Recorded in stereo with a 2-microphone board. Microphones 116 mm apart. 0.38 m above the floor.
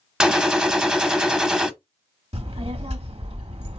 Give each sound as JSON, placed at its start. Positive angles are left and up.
{"t": 0.2, "sound": "a gunshot", "side_deg": -5, "distance_m": 0.6}
{"t": 2.3, "sound": "a child speaking", "side_deg": -60, "distance_m": 1.1}